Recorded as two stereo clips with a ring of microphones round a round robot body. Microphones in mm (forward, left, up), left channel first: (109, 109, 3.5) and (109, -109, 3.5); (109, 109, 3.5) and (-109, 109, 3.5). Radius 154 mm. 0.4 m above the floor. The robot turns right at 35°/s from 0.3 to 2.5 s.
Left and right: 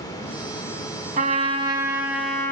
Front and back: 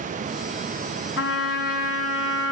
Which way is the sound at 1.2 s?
40° right.